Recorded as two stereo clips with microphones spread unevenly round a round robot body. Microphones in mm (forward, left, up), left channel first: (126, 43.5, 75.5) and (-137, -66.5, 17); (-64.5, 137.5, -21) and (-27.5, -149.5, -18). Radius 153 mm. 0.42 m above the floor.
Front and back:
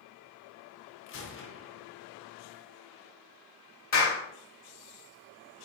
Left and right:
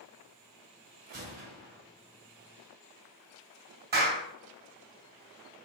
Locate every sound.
1.1 s a gunshot: 25° right, 0.9 m
3.9 s a clap: 25° right, 1.7 m